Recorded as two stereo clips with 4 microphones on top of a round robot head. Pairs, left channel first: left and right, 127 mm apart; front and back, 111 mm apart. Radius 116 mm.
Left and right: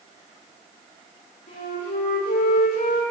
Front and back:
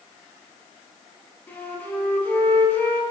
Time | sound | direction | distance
1.5 | a flute | 70° left | 7.5 m